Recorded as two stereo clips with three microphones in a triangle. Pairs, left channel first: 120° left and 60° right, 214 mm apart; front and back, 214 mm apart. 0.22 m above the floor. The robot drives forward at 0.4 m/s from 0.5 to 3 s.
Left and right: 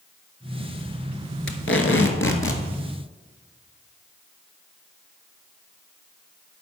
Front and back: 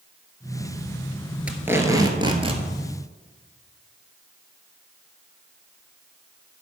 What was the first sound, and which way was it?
Tape being pulled, 95° left.